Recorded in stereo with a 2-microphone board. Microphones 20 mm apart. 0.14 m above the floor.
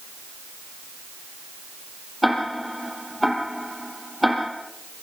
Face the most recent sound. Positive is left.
turn(degrees=0)  # may be behind; listen again after turning